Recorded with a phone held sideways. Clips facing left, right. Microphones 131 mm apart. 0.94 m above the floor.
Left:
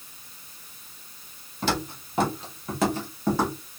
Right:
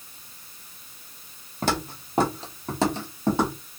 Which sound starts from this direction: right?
Footsteps, at 1.6 s.